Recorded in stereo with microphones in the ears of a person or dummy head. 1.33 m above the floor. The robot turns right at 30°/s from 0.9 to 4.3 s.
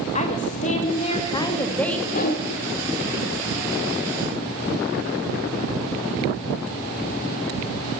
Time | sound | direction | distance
0.1 | a woman speaking | 140° left | 2.5 m
2.1 | a whoosh | 40° left (ahead or behind) | 2.5 m